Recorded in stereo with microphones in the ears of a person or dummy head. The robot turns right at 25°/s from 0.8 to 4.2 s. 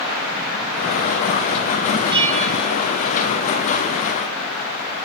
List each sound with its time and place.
2.1 s a bell: 35° right (ahead or behind), 1.7 m; by 2.8 s 50° right (ahead or behind), 1.7 m